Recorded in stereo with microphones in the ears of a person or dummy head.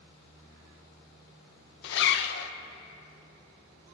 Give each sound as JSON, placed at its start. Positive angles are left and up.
{"t": 1.8, "sound": "a zipper", "side_deg": 65, "distance_m": 0.8}